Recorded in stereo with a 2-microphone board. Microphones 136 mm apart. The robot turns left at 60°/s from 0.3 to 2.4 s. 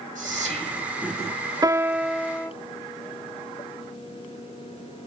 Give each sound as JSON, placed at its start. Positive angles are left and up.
{"t": 0.1, "sound": "whispering", "azimuth_deg": -110, "distance_m": 3.0}
{"t": 1.6, "sound": "a piano", "azimuth_deg": -150, "distance_m": 0.5}